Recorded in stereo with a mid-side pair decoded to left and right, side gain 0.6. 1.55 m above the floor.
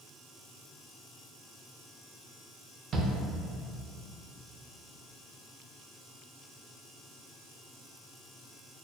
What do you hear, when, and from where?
2.9 s a shout: 40° right, 0.6 m